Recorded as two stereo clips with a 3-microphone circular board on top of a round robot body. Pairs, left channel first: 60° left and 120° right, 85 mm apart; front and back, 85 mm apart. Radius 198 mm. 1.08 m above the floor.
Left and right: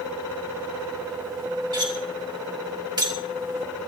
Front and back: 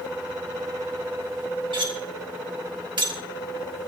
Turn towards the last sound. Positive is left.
turn(degrees=-155)